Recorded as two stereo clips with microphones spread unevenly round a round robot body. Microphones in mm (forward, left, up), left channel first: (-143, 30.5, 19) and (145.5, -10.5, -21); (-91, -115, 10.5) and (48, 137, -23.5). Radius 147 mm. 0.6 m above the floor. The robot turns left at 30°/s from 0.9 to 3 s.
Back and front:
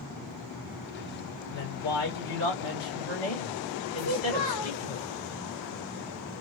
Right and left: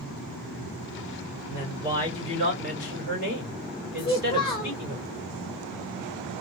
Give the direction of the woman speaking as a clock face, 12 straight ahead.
4 o'clock.